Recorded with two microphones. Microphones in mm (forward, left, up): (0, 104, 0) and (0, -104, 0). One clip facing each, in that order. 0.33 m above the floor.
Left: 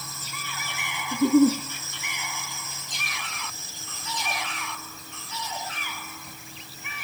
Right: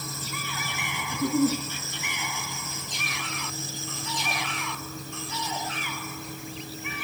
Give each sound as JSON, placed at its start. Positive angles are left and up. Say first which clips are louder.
{"t": 1.1, "sound": "a giggle", "louder": "left 6 dB", "side_deg": 25, "distance_m": 1.3}